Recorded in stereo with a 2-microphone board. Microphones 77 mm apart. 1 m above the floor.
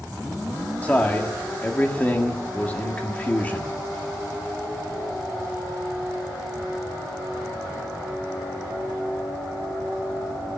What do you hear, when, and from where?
0.8 s a man speaking: 20° left (ahead or behind), 1.8 m